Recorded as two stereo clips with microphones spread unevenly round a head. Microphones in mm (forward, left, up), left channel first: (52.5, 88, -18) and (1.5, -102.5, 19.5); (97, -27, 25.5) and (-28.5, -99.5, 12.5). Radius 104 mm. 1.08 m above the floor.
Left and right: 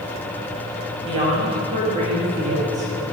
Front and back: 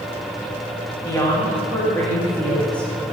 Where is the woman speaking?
35° right, 1.6 m; by 3.1 s 55° right, 3 m.